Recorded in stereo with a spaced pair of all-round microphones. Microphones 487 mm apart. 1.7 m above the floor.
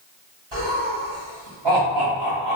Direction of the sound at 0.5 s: 75° right (ahead or behind).